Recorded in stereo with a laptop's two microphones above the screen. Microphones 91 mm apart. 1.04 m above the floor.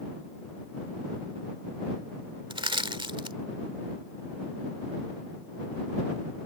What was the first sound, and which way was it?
Crushing, 65° right (ahead or behind).